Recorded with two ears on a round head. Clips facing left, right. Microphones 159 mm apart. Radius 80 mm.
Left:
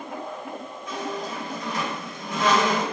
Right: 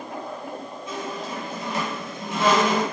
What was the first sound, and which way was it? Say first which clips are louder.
A squeak: left 1 dB; 25° right (ahead or behind).